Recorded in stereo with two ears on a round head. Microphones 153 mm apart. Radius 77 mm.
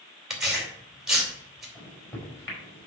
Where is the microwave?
15° left (ahead or behind), 5 m.